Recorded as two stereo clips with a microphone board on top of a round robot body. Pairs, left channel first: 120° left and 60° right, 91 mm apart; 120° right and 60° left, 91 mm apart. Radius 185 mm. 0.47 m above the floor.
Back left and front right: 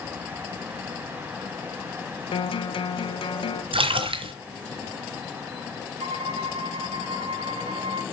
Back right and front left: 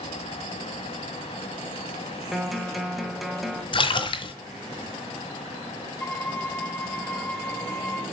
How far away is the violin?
About 0.7 m.